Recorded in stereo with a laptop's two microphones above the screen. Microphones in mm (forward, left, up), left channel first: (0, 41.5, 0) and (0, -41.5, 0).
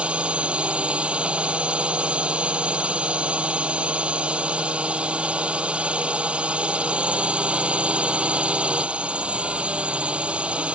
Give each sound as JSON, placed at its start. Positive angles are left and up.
{"t": 0.0, "sound": "a drone", "side_deg": -15}